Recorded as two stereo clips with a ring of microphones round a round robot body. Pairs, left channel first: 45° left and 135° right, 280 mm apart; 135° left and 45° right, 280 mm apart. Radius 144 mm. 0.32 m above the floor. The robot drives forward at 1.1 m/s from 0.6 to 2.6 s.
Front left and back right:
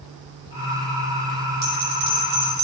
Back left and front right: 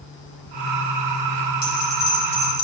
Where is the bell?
170° left, 2.5 m; by 2.6 s 175° left, 3.5 m.